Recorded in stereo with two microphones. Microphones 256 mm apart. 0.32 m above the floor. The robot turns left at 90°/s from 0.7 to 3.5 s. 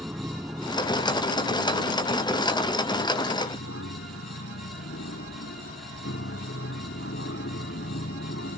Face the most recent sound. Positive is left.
turn(degrees=50)  # may be behind; listen again after turning